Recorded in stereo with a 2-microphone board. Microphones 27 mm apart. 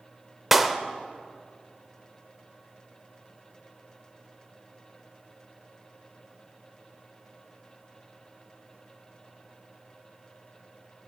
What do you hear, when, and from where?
0.5 s a clap: 5° right (ahead or behind), 0.6 m